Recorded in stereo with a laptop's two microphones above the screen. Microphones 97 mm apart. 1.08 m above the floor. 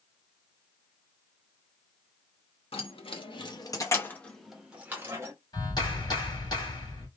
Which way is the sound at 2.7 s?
70° left (ahead or behind).